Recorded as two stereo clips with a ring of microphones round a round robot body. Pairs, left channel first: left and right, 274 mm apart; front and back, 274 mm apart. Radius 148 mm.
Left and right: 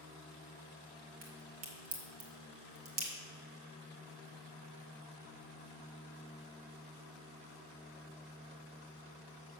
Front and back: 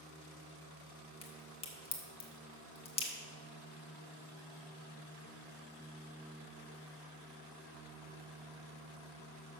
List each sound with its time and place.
1.2 s a crack: 65° right, 1.6 m